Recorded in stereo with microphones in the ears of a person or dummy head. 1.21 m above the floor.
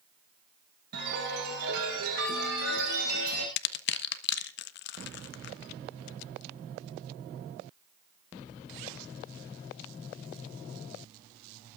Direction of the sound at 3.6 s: 70° left (ahead or behind).